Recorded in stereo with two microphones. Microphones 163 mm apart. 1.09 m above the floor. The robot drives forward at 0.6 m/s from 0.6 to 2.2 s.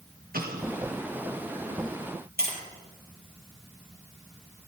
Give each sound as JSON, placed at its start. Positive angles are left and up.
{"t": 0.3, "sound": "an explosion", "side_deg": -65, "distance_m": 1.6}
{"t": 2.4, "sound": "tapping", "side_deg": -75, "distance_m": 4.0}